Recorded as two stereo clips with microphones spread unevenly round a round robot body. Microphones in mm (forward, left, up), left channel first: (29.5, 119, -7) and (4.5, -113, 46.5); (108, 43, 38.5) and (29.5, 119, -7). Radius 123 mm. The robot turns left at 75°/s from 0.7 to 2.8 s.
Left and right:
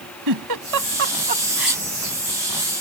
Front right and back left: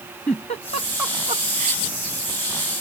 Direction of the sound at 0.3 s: 110° right.